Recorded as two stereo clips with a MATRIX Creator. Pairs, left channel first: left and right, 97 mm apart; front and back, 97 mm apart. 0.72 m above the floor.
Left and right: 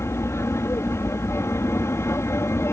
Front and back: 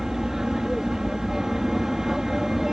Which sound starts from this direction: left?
An aircraft, at 0.0 s.